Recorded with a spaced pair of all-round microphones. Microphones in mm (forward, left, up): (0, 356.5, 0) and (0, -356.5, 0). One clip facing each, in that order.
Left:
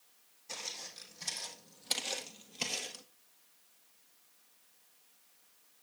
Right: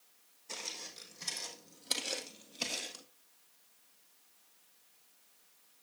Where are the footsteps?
20° left (ahead or behind), 3.5 m; by 3.0 s 35° left (ahead or behind), 1.7 m.